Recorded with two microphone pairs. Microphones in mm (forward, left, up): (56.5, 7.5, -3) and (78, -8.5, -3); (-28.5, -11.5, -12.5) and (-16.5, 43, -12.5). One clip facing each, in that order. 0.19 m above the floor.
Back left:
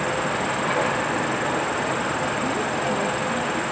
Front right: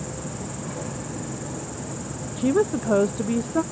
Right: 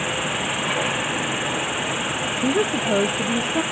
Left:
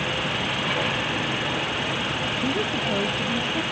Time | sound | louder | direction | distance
0.0 | an insect | back left 11 dB, right 2 dB | 175° left | ?
2.4 | a woman speaking | front right 2 dB, right 7 dB | 45° right | ?